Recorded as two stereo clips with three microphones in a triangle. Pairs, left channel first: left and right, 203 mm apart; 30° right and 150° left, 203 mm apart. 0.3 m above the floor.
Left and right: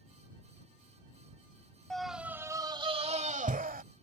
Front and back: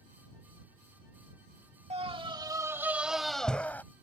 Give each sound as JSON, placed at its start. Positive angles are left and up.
{"t": 1.9, "sound": "a scream", "azimuth_deg": 175}